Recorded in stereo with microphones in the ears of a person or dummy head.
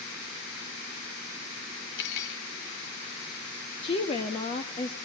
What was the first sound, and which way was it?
Cutlery clinking, 75° left (ahead or behind).